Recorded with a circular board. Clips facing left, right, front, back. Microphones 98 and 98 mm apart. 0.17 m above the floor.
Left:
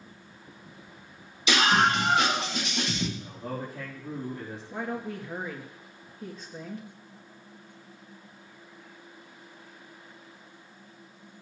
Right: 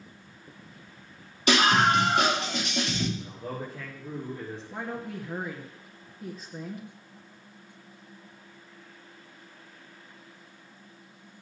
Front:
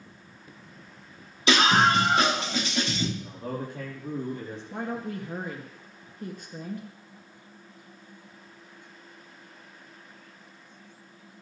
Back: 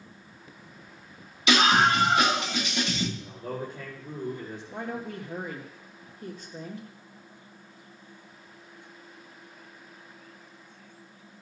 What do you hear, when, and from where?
1.5 s a scream: 55° right, 7.5 m
3.2 s a man speaking: straight ahead, 4 m
4.7 s a woman speaking: 5° right, 2 m